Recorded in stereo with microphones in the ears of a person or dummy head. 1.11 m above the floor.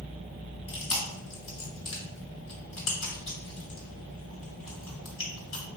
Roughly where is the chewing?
Left.